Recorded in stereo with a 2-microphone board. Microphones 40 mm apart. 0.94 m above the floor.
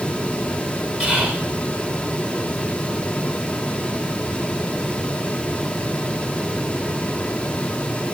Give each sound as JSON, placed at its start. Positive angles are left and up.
{"t": 1.0, "sound": "whispering", "side_deg": -15, "distance_m": 3.5}